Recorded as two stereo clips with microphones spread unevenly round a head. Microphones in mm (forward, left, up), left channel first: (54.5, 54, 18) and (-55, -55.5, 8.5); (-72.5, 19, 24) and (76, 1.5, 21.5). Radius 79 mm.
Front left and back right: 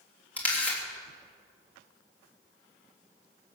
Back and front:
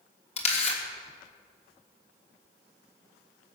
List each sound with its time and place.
0.4 s a camera shutter: 125° left, 3 m